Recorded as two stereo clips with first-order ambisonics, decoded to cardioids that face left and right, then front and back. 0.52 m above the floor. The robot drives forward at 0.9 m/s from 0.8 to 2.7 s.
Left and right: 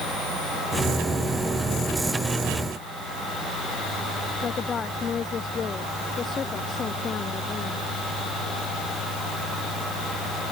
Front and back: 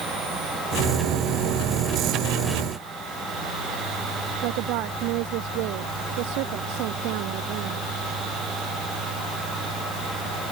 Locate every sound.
4.4 s a woman speaking: 155° left